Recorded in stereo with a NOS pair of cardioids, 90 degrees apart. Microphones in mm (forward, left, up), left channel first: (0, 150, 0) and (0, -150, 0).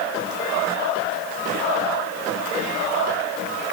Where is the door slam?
No door slam in this recording.